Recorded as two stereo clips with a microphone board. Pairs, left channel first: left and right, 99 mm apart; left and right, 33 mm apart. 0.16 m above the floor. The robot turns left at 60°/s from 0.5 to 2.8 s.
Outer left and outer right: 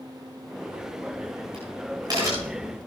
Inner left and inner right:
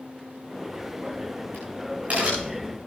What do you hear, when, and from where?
0.7 s a crack: 55° right (ahead or behind), 10 m; by 2.8 s centre (ahead or behind), 10 m